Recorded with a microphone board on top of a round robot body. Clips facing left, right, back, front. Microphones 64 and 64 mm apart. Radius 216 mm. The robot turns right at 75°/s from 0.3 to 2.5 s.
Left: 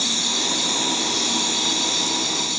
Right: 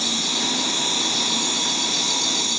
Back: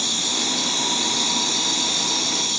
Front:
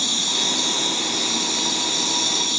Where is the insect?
95° left, 1.3 m; by 2.6 s 100° right, 1.3 m.